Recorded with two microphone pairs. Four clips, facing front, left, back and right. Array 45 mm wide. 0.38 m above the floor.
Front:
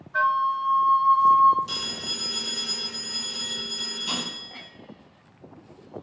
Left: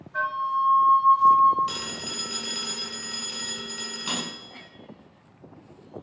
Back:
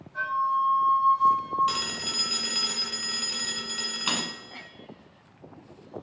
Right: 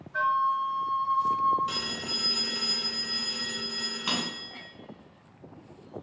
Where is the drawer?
165° right, 1.0 m.